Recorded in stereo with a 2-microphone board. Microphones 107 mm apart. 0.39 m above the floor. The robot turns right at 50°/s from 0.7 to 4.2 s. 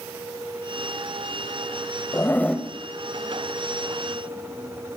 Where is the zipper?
25° left (ahead or behind), 0.8 m; by 2.7 s centre (ahead or behind), 0.8 m.